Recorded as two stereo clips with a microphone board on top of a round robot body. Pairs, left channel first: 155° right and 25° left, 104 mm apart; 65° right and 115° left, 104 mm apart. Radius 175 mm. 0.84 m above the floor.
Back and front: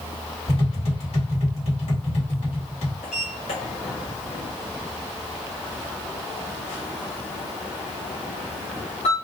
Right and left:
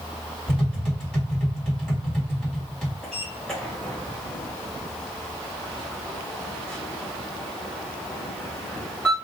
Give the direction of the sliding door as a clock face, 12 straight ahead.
5 o'clock.